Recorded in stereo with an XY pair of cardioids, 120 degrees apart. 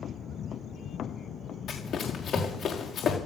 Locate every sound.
1.7 s running footsteps: 50° left, 5.5 m